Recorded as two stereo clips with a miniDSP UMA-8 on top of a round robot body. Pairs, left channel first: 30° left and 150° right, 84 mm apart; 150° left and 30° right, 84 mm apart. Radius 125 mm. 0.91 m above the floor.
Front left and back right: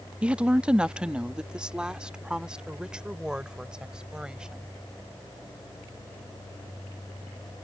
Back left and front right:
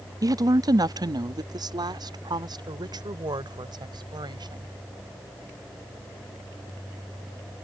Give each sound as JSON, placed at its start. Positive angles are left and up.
{"t": 0.2, "sound": "a woman speaking", "azimuth_deg": -75}